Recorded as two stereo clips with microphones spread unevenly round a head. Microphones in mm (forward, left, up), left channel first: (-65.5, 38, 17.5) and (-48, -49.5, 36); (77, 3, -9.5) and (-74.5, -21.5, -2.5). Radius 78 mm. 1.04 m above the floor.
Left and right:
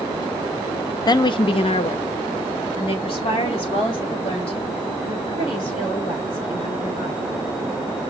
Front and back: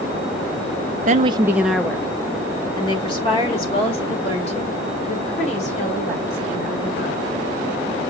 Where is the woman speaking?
145° left, 0.5 m; by 7.3 s 60° left, 4.5 m.